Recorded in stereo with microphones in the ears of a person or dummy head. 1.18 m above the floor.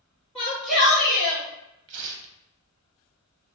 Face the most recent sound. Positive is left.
turn(degrees=-70)  # may be behind; listen again after turning